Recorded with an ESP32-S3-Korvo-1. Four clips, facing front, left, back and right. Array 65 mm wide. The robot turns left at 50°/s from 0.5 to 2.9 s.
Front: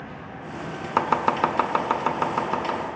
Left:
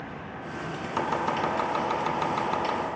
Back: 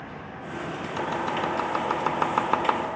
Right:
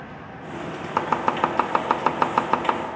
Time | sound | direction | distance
1.0 | chopping | 30° right | 0.5 m